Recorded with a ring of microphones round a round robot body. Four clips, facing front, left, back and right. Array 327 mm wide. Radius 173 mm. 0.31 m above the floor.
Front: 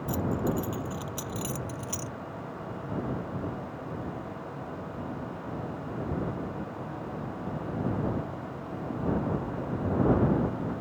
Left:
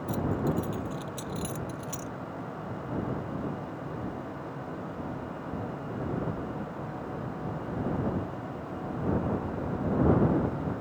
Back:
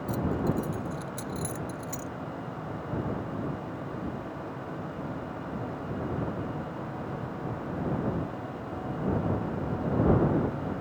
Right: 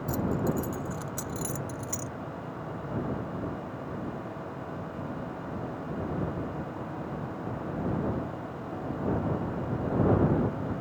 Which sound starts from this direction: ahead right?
Keys jangling, at 0.1 s.